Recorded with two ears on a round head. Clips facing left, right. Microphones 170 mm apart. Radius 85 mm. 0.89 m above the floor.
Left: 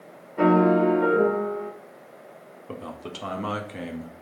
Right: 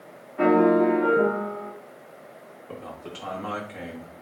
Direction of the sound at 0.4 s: 80° left.